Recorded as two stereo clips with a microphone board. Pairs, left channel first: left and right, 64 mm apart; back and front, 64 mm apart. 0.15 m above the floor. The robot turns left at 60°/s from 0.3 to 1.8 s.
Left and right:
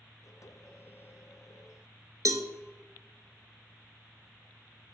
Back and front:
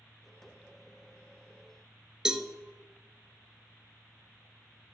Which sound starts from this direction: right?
A cowbell, at 2.2 s.